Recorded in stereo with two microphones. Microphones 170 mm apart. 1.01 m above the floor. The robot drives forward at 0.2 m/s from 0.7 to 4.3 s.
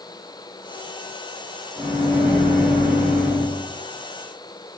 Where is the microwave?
35° right (ahead or behind), 1.2 m; by 3.5 s 50° right (ahead or behind), 1.0 m.